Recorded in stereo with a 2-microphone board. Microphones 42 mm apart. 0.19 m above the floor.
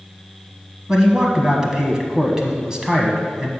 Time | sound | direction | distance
0.9 | a man speaking | 15° right (ahead or behind) | 1.0 m